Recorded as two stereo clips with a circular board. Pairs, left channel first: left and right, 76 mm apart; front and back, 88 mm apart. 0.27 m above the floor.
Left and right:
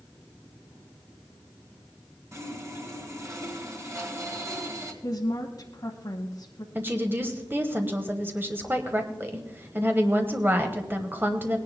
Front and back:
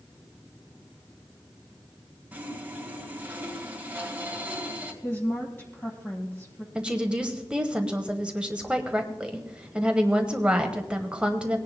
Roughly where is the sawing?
Behind right.